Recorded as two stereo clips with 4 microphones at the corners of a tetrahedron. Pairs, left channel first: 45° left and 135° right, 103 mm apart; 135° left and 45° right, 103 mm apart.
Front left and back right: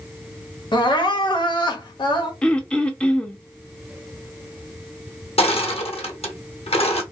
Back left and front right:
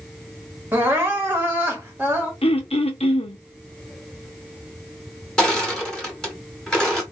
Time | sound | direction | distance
0.7 | crying | 20° left | 1.0 m
2.4 | throat clearing | 125° left | 0.5 m
5.4 | crushing | 50° left | 1.0 m